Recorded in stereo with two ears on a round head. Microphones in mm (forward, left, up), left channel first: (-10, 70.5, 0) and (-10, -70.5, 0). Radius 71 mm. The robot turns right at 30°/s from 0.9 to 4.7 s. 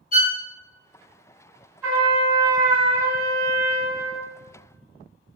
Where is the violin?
55° left (ahead or behind), 0.6 m.